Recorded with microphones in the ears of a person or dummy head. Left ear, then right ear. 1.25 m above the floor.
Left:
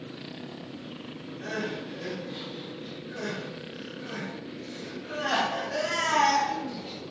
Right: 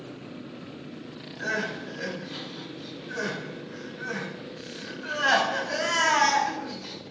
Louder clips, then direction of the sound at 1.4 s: Right 4 dB; 65° right (ahead or behind).